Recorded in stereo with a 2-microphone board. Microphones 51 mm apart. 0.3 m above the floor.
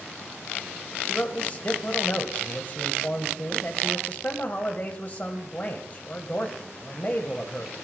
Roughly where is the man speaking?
Left.